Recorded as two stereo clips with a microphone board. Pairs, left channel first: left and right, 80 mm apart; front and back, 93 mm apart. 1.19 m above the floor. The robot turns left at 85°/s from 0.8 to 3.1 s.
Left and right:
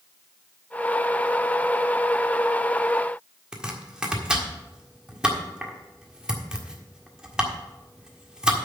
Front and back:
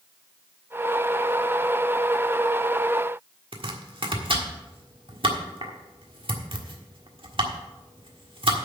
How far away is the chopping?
About 1.5 m.